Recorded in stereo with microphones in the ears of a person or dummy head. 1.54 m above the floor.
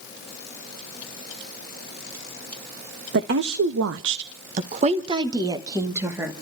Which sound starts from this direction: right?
A woman speaking, at 3.1 s.